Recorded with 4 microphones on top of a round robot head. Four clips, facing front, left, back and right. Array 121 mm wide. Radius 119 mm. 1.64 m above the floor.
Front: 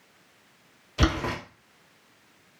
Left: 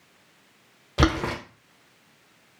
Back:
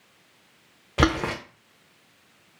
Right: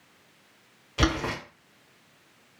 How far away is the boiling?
About 0.6 m.